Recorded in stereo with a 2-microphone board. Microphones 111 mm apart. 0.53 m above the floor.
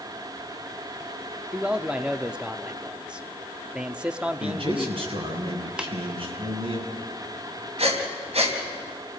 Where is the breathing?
70° right (ahead or behind), 3.5 m.